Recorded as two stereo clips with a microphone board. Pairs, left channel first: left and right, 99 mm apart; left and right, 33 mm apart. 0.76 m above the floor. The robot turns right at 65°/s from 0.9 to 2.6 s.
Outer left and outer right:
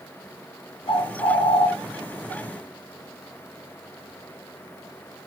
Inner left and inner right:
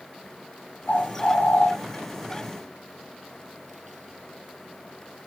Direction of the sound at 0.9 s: 60° left.